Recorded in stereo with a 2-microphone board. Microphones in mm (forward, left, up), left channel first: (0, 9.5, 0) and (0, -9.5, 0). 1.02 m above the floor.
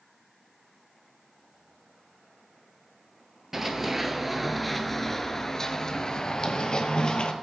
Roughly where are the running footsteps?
Right.